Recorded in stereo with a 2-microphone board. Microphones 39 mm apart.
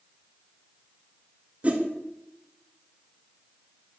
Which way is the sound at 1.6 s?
35° right (ahead or behind).